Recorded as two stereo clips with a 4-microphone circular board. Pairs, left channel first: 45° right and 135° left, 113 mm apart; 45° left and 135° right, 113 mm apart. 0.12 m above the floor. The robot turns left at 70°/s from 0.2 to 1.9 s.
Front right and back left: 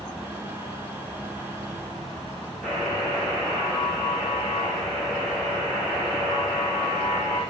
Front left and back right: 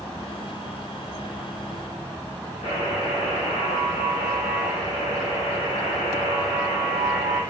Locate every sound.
2.6 s a buzzer: 40° left, 3.5 m